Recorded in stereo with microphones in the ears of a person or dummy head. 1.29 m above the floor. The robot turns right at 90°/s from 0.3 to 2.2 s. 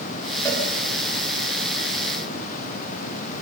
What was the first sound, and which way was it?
A cowbell, 15° left (ahead or behind).